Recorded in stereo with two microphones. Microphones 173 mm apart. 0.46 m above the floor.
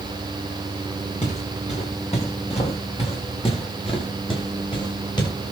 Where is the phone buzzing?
I don't hear a phone buzzing.